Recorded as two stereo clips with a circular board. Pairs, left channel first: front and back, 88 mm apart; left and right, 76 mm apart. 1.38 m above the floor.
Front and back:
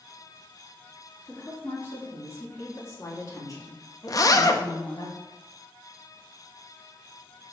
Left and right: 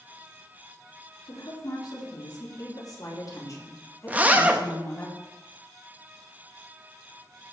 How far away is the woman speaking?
About 4 m.